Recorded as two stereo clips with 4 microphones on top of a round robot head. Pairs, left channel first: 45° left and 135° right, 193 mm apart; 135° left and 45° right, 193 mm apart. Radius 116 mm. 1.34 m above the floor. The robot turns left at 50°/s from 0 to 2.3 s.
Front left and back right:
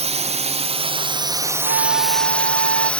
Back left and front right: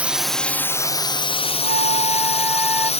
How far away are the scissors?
I don't hear scissors.